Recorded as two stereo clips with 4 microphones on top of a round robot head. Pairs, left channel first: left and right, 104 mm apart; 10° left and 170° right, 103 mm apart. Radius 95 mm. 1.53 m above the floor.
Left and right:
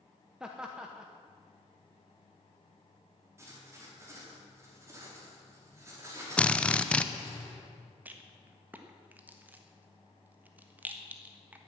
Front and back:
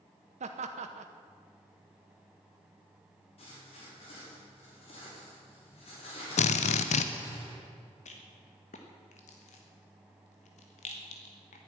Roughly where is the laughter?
Behind.